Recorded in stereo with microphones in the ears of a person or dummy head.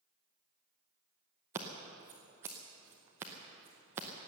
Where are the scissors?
15° right (ahead or behind), 0.9 m.